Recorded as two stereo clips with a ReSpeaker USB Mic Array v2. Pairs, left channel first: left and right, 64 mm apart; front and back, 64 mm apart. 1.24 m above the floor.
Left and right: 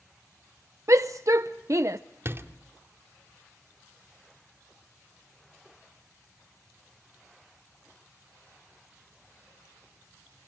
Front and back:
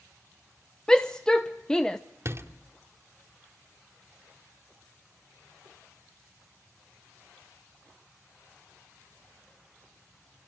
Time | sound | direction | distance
0.9 | a shout | 75° right | 0.8 m
2.2 | a door slam | 140° right | 2 m